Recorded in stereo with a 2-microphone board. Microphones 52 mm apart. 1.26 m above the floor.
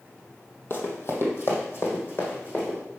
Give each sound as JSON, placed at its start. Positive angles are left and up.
{"t": 0.7, "sound": "running footsteps", "side_deg": 50, "distance_m": 2.0}